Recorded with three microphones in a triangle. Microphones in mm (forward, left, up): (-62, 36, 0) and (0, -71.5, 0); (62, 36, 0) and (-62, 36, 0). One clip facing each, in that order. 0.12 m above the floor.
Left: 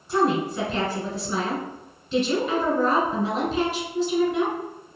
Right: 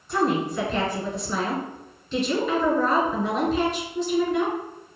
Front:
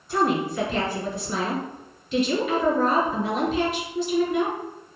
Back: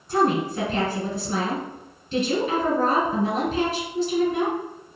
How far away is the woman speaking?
About 1.5 m.